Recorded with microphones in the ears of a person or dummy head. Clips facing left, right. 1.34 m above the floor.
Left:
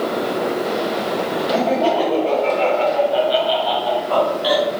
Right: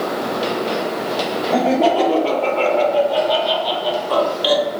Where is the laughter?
80° right, 3 m; by 4.7 s 45° right (ahead or behind), 2.5 m.